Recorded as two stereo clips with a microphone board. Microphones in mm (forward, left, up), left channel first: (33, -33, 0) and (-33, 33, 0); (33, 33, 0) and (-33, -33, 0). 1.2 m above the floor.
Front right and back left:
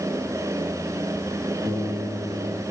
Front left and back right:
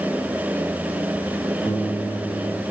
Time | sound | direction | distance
1.6 | a piano | 105° left | 2.0 m